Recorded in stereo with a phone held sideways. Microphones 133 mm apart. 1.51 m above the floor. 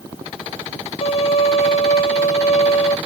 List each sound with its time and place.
1.0 s a violin: 50° left (ahead or behind), 0.6 m